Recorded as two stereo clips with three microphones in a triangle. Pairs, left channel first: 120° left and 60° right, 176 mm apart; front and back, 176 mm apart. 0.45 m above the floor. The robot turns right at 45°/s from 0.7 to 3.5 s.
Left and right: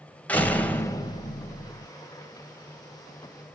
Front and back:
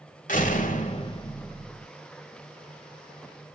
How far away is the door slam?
About 1.5 m.